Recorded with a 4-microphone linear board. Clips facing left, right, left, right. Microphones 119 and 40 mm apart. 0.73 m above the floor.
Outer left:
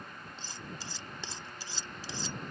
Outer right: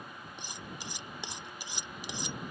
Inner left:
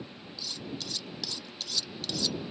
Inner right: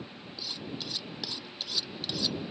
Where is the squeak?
No squeak in this recording.